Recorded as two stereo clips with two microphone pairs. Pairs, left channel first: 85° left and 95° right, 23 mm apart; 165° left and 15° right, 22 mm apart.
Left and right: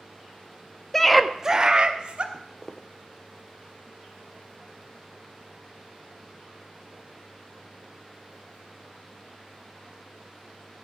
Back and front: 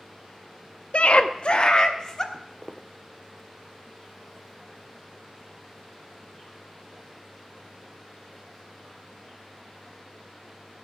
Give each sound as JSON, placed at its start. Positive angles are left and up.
{"t": 0.9, "sound": "a scream", "azimuth_deg": 160, "distance_m": 0.7}
{"t": 2.3, "sound": "footsteps", "azimuth_deg": 30, "distance_m": 0.9}